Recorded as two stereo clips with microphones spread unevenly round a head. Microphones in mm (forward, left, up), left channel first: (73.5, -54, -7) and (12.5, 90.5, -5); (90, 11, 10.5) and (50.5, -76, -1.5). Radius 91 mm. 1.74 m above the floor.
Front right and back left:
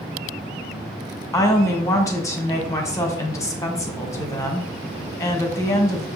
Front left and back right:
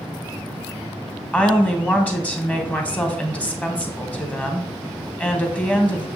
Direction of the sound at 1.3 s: Straight ahead.